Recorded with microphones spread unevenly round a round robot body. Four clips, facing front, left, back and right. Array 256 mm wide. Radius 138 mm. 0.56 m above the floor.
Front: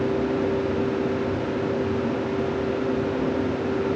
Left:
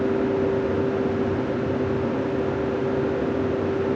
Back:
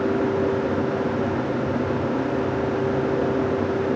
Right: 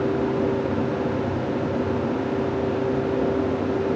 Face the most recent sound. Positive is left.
No sound to turn to.